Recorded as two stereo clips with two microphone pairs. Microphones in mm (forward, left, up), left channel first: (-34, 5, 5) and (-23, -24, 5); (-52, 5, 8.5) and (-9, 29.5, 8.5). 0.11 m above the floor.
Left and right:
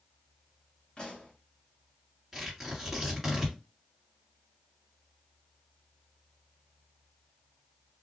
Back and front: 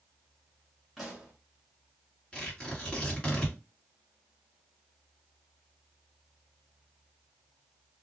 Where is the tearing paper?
145° right, 1.7 m.